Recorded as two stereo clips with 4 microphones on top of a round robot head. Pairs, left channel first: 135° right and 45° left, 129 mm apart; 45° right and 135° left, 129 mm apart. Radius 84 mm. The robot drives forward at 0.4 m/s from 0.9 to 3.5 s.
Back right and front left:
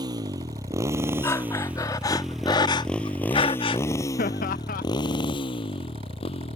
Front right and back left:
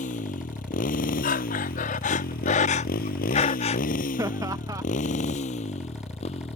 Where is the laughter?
160° right.